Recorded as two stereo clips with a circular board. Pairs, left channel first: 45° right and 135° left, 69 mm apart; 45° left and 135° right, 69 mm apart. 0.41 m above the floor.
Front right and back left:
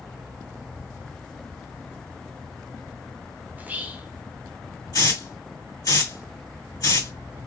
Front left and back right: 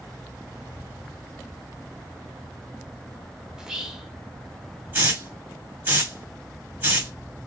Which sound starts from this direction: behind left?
Whispering, at 3.5 s.